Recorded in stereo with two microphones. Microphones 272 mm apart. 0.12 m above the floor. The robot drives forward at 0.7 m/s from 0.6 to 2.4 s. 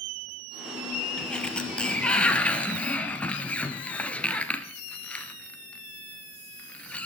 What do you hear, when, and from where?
1.2 s a sliding door: 5° left (ahead or behind), 2 m